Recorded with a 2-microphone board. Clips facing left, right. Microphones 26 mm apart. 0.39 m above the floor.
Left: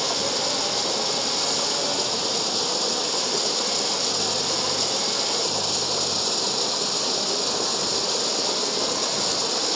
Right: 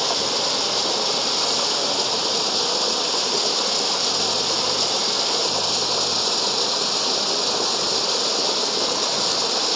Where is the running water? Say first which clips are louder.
Right 3 dB; 20° right (ahead or behind).